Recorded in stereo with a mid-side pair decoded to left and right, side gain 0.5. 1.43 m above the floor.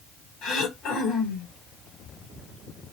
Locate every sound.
0.4 s throat clearing: 70° left, 1.3 m